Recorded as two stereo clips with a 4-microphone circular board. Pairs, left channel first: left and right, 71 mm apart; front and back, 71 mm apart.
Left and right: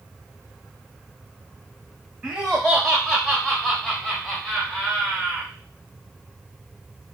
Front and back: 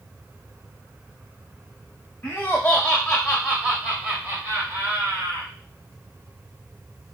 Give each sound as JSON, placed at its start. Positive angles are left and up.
{"t": 2.2, "sound": "laughter", "azimuth_deg": -10, "distance_m": 1.3}